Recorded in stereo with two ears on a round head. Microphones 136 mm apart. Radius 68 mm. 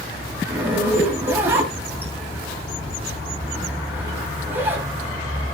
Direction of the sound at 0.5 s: 15° right (ahead or behind).